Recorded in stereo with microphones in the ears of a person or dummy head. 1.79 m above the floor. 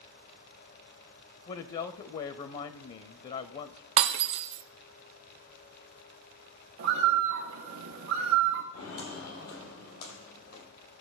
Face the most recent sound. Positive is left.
turn(degrees=60)  # may be behind; listen again after turning